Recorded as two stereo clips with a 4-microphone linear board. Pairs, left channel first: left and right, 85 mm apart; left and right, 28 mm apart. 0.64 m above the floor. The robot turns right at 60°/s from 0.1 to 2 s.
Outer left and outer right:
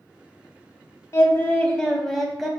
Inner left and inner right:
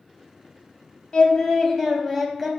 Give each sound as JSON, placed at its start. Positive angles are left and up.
{"t": 1.1, "sound": "singing", "azimuth_deg": 125, "distance_m": 0.6}